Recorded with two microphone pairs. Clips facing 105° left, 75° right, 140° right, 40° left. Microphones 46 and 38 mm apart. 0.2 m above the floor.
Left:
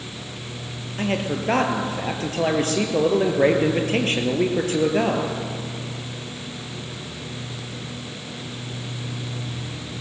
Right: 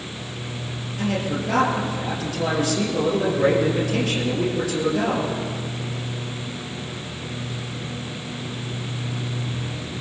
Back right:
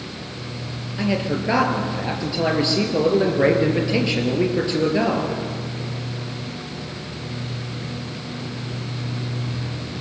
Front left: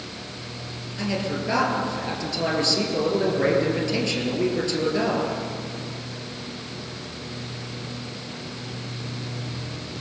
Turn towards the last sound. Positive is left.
turn(degrees=155)